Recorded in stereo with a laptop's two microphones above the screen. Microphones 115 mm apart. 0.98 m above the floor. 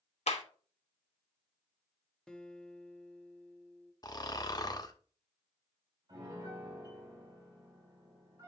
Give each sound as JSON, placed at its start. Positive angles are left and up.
{"t": 0.3, "sound": "a clap", "side_deg": 70, "distance_m": 1.1}
{"t": 2.3, "sound": "a guitar", "side_deg": 10, "distance_m": 0.7}
{"t": 4.0, "sound": "snoring", "side_deg": 35, "distance_m": 0.9}
{"t": 6.1, "sound": "a piano", "side_deg": -40, "distance_m": 5.0}